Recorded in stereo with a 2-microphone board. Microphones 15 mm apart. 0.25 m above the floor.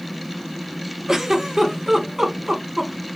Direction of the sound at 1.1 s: 35° right (ahead or behind).